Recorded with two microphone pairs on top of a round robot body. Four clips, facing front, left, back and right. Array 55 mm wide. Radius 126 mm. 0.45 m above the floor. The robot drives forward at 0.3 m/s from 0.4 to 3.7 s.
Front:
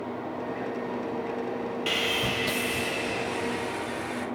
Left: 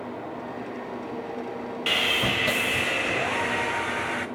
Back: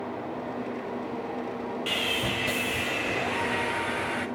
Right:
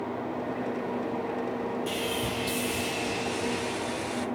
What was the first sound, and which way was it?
Sawing, 70° left.